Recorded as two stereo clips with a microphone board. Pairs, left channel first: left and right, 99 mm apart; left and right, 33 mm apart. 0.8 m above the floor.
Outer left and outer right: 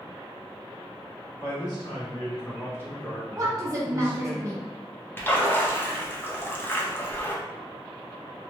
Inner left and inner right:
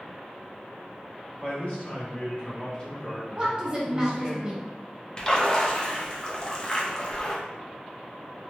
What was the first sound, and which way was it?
A man speaking, 45° left (ahead or behind).